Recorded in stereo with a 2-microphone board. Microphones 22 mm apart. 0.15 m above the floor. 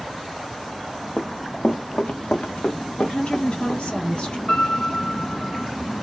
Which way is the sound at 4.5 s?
30° left (ahead or behind).